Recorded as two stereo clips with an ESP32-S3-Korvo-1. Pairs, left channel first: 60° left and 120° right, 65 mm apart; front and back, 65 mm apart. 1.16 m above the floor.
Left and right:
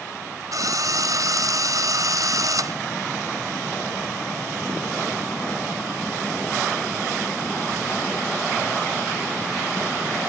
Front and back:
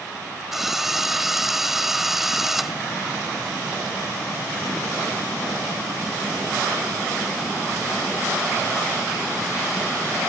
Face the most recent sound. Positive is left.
turn(degrees=-95)